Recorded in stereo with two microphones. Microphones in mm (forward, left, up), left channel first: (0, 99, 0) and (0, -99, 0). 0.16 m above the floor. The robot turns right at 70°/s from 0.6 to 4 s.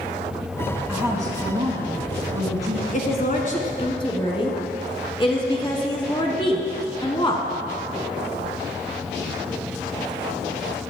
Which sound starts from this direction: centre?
A woman speaking, at 0.9 s.